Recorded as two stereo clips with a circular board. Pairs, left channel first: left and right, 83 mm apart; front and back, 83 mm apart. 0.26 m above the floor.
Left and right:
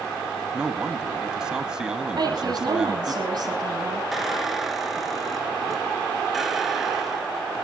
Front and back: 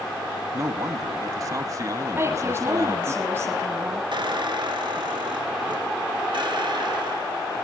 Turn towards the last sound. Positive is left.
turn(degrees=180)